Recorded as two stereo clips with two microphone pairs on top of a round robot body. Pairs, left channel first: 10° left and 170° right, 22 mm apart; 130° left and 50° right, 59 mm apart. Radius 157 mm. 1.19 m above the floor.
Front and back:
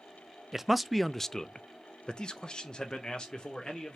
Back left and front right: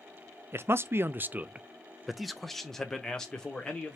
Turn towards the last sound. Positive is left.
turn(degrees=60)